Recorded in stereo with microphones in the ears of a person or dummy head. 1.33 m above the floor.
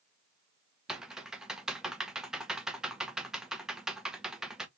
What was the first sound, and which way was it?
Typing on a keyboard, centre (ahead or behind).